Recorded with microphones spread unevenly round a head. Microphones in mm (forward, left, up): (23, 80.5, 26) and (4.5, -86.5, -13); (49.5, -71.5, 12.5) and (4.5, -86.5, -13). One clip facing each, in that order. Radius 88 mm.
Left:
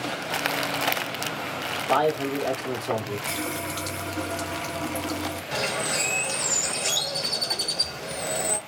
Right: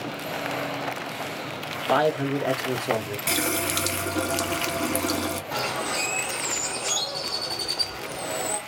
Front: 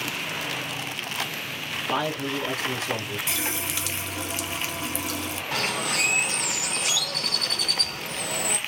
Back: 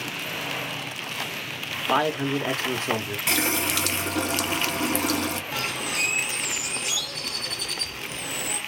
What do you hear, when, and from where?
1.9 s a man speaking: 160° right, 0.8 m
3.3 s a running tap: 120° right, 0.6 m
5.5 s a bird: 25° left, 0.8 m